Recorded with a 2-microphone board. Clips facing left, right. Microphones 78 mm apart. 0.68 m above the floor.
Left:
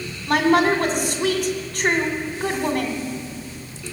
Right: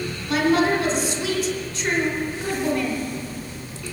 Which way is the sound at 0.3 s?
60° left (ahead or behind).